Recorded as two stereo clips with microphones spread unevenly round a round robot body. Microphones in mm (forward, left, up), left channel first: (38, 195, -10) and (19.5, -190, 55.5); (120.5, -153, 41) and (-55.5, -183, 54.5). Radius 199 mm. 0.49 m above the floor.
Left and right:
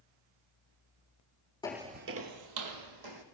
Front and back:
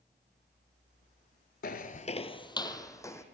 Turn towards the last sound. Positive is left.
turn(degrees=-65)